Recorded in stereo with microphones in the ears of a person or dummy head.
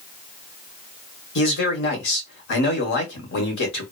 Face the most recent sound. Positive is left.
turn(degrees=60)  # may be behind; listen again after turning